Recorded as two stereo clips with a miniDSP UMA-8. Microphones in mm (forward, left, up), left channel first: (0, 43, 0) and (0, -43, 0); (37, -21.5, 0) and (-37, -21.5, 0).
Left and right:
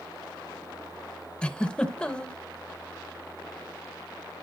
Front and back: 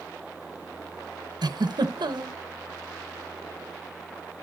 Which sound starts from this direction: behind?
A giggle, at 1.4 s.